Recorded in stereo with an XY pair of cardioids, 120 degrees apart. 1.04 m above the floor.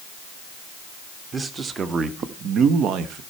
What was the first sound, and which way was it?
A man speaking, 30° right.